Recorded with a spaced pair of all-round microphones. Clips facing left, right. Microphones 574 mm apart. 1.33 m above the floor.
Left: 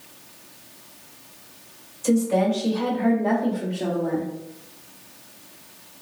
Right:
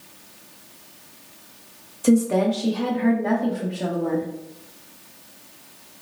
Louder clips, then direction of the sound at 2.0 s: Right 2 dB; 75° right (ahead or behind).